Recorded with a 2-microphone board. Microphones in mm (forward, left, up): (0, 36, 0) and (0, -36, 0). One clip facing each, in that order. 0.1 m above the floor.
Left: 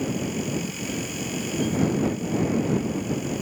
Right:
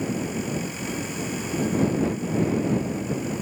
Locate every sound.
Only background noise.